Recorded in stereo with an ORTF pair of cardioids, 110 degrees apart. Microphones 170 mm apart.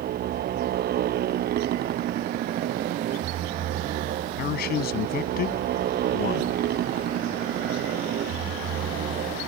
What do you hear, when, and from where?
0.0 s a motorcycle: 65° right
4.4 s a man speaking: 65° left